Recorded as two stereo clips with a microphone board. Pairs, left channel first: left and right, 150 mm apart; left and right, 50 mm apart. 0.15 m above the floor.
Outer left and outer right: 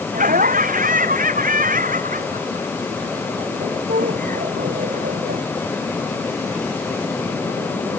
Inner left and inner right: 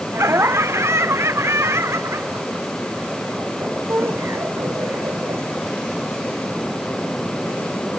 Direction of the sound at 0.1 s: 60° right (ahead or behind).